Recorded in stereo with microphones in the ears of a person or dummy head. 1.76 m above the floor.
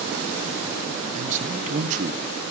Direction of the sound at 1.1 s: 45° right (ahead or behind).